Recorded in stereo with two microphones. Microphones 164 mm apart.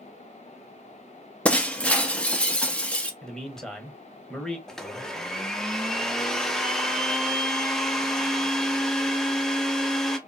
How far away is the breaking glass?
About 0.5 m.